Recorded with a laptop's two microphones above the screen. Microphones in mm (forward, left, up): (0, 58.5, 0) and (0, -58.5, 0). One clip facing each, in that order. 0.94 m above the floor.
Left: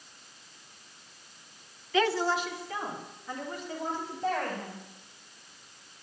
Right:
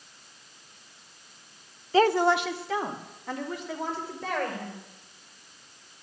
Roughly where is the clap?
I don't hear a clap.